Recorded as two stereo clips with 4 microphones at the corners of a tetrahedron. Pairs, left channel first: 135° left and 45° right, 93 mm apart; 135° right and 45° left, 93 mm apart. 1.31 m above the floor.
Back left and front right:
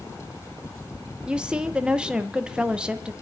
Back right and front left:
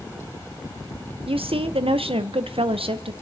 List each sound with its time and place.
1.3 s a woman speaking: 35° left, 0.8 m